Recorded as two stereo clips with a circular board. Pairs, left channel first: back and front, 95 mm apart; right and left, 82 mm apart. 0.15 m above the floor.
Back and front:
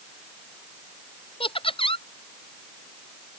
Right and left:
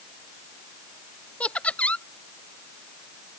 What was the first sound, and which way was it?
Laughter, 165° right.